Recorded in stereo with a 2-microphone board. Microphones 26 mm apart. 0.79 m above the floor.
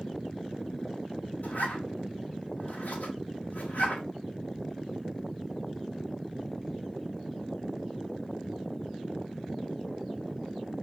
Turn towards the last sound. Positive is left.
turn(degrees=75)  # may be behind; listen again after turning